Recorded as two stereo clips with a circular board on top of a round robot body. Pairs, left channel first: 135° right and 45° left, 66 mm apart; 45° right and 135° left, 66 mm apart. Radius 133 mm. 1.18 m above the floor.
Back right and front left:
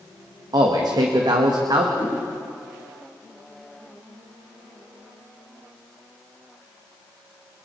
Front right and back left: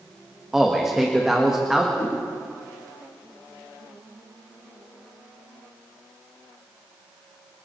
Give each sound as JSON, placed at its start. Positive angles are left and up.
{"t": 0.5, "sound": "a man speaking", "azimuth_deg": 50, "distance_m": 2.0}
{"t": 2.0, "sound": "a whoosh", "azimuth_deg": 20, "distance_m": 5.5}